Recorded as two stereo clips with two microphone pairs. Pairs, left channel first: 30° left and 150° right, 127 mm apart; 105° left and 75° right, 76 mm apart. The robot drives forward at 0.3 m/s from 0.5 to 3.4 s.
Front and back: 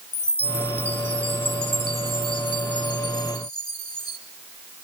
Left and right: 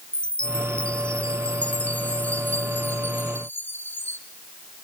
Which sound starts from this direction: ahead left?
A chime, at 0.1 s.